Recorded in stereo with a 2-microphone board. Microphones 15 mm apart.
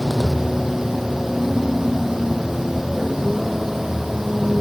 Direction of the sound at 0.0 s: 15° right (ahead or behind).